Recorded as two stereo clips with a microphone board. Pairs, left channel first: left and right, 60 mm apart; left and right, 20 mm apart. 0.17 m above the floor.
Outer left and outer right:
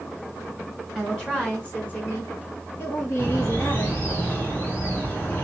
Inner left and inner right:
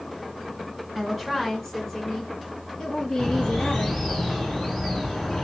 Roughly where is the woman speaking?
Centre.